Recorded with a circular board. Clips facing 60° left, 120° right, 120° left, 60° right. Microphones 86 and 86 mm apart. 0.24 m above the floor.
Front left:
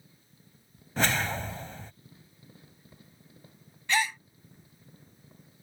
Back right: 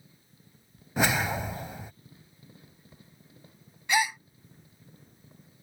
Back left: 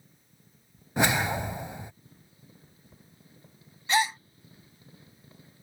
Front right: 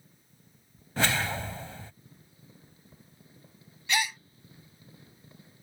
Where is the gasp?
165° left.